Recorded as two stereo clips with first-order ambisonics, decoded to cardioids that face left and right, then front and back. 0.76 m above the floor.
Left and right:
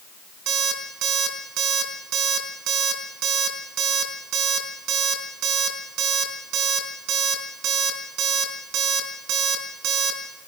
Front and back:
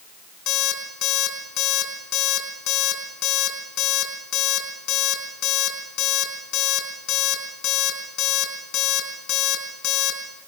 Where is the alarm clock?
45° right, 4.5 m.